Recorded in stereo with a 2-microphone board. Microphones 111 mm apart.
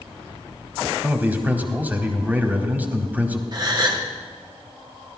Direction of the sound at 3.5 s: 40° right (ahead or behind).